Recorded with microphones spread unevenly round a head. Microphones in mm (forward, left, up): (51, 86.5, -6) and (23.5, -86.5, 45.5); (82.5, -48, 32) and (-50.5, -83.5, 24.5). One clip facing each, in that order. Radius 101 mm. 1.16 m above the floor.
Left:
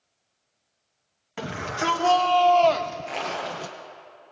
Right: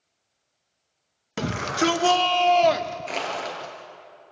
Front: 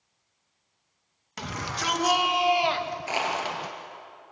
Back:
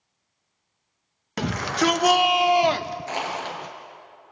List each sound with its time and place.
1.4 s a shout: 150° right, 1.8 m; by 3.8 s 90° left, 1.0 m
3.1 s crushing: 65° right, 7.5 m